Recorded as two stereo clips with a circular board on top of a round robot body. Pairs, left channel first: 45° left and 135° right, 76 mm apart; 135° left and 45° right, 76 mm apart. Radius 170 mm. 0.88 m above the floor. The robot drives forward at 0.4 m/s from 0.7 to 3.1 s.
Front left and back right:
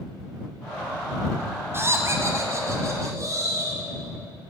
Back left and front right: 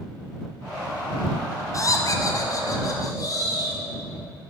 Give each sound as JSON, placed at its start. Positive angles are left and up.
{"t": 1.7, "sound": "laughter", "azimuth_deg": 175, "distance_m": 0.6}